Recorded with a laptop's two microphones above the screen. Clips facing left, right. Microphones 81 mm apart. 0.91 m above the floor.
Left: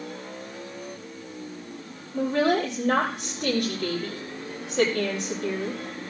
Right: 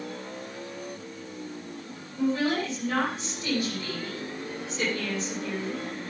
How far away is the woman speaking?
About 4 m.